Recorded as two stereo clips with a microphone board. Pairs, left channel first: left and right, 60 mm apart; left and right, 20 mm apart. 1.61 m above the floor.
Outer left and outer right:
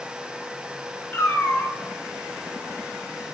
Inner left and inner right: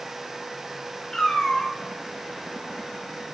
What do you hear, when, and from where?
1.1 s a cat meowing: 35° left (ahead or behind), 2.5 m